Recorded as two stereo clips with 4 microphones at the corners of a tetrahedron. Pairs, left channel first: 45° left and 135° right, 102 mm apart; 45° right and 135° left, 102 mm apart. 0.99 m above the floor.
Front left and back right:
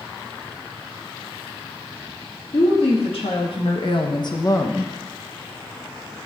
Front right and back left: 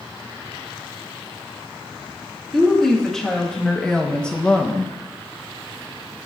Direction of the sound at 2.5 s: 40° left.